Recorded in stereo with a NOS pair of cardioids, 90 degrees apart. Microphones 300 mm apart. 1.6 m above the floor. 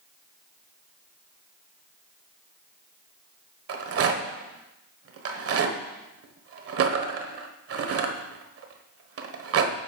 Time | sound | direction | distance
3.7 | a rattle | 50° right | 1.2 m